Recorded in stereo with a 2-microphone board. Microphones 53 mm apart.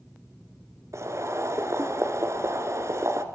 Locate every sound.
0.9 s boiling: 60° right (ahead or behind), 1.7 m